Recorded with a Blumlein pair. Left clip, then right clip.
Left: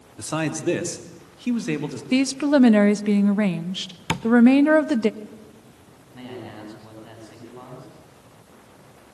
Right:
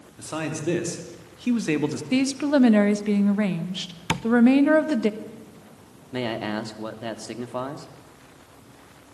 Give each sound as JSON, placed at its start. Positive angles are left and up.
{"t": 0.2, "sound": "a man speaking", "azimuth_deg": 20, "distance_m": 3.0}
{"t": 2.1, "sound": "a woman speaking", "azimuth_deg": 10, "distance_m": 1.2}
{"t": 4.1, "sound": "tapping", "azimuth_deg": 5, "distance_m": 0.6}
{"t": 6.1, "sound": "a man speaking", "azimuth_deg": -45, "distance_m": 3.0}